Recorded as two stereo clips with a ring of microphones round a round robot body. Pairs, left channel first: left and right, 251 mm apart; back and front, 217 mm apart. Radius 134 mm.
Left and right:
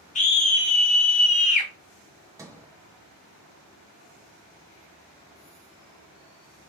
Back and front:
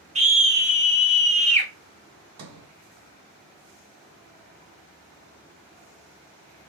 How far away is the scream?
About 1.7 m.